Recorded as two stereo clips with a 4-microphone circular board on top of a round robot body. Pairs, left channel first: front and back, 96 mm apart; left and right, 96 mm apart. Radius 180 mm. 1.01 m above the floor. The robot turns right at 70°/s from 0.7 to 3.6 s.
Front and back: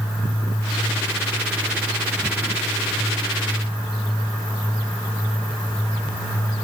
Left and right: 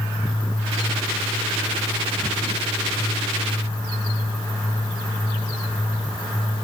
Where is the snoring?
No snoring in this recording.